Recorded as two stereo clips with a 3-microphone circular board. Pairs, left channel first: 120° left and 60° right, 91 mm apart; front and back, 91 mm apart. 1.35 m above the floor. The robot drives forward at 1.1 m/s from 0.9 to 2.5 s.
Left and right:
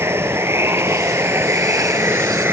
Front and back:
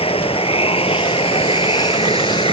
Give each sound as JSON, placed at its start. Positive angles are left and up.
{"t": 0.0, "sound": "running water", "azimuth_deg": 5}